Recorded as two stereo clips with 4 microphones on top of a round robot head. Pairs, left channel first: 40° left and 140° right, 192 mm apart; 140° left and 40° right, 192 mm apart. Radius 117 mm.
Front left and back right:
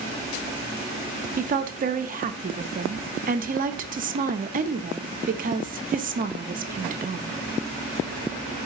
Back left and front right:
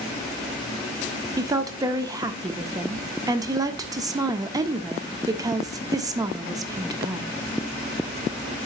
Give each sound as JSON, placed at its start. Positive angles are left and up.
{"t": 1.4, "sound": "a woman speaking", "azimuth_deg": -110, "distance_m": 0.6}